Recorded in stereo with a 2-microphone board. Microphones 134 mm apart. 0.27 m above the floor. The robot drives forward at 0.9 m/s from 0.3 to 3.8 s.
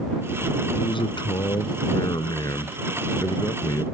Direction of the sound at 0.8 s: 40° left (ahead or behind).